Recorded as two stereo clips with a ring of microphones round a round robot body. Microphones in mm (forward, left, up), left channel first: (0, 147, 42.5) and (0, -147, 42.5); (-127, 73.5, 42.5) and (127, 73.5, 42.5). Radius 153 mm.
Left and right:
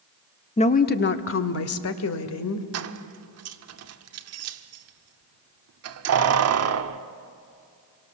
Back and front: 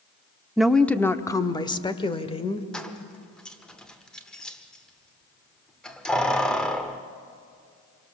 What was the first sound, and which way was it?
A woman speaking, 80° left.